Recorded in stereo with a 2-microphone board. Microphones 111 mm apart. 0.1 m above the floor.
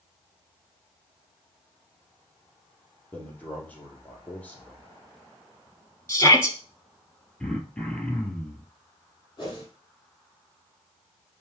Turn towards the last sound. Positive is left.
turn(degrees=35)  # may be behind; listen again after turning